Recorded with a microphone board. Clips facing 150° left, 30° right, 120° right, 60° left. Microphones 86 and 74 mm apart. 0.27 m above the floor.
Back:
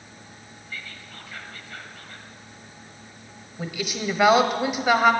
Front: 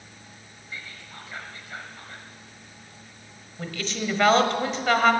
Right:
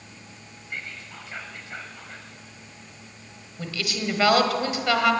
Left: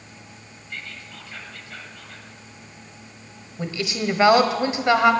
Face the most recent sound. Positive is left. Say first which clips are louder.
# back 1 dB, left 4 dB
turn(degrees=85)